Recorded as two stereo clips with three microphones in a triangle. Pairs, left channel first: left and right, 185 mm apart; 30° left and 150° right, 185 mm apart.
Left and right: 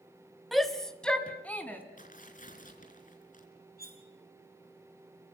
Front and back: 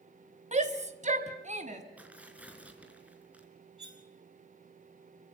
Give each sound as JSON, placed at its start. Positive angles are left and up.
{"t": 0.5, "sound": "a shout", "azimuth_deg": 180, "distance_m": 2.0}
{"t": 2.0, "sound": "tearing paper", "azimuth_deg": 130, "distance_m": 4.5}
{"t": 3.8, "sound": "cutlery clinking", "azimuth_deg": -65, "distance_m": 3.0}